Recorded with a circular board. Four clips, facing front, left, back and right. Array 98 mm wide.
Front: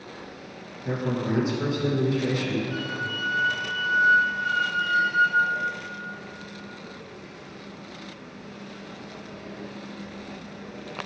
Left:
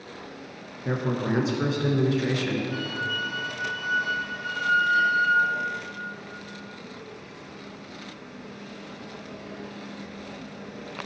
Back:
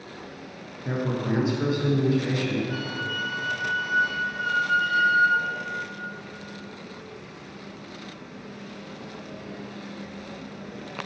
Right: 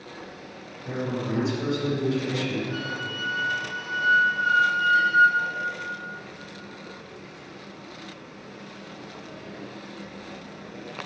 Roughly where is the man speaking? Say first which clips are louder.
Left 2 dB, even; left.